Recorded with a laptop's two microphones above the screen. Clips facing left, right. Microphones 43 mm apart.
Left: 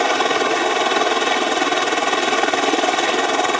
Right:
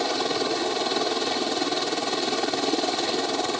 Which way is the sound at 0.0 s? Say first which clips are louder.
Left 8 dB; 60° left (ahead or behind).